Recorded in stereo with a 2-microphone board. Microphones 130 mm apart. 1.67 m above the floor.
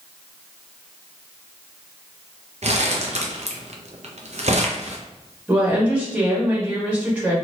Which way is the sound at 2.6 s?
60° right (ahead or behind).